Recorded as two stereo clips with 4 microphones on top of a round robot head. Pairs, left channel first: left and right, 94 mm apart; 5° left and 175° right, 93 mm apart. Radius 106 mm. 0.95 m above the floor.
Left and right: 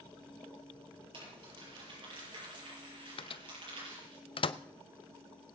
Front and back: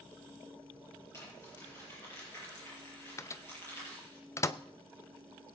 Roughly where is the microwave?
Ahead left.